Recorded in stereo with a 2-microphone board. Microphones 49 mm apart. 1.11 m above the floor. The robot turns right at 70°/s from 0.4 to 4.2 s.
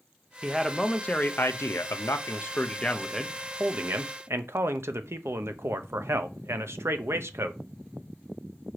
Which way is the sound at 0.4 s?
15° right.